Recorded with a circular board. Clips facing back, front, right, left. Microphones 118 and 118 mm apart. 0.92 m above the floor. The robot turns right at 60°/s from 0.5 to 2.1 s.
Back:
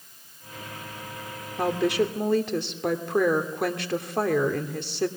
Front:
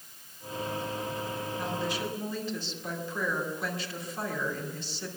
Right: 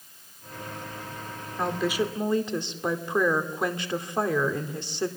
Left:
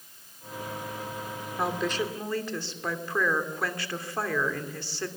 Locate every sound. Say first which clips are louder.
1.6 s a woman speaking: back 12 dB, right 2 dB; 170° left, 2.5 m; by 5.1 s 160° right, 2.5 m